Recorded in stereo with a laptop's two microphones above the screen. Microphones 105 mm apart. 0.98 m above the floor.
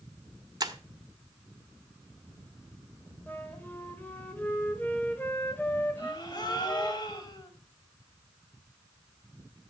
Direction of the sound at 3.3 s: 20° left (ahead or behind).